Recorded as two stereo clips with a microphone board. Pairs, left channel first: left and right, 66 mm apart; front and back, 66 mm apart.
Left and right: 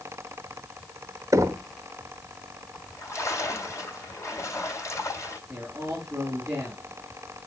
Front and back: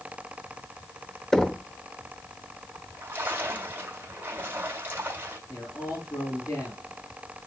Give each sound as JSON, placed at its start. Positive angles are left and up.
{"t": 1.3, "sound": "knocking", "azimuth_deg": -80, "distance_m": 0.6}
{"t": 2.7, "sound": "a splash", "azimuth_deg": 125, "distance_m": 3.0}
{"t": 5.5, "sound": "a man speaking", "azimuth_deg": -20, "distance_m": 5.5}